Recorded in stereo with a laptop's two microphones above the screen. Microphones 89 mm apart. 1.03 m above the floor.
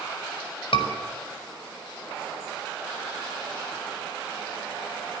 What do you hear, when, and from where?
0.7 s a scream: 70° left (ahead or behind), 5.5 m